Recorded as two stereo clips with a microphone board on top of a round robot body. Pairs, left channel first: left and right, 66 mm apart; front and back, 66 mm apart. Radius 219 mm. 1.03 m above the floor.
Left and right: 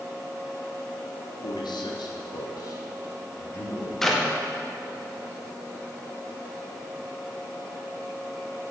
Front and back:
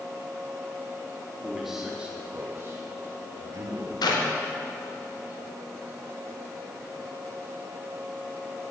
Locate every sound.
1.4 s a man speaking: 90° left, 1.9 m; by 3.9 s 150° left, 2.5 m
4.0 s a clap: 5° left, 1.8 m